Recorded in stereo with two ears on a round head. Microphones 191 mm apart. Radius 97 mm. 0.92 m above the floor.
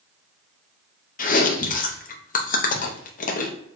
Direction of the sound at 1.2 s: 40° left (ahead or behind).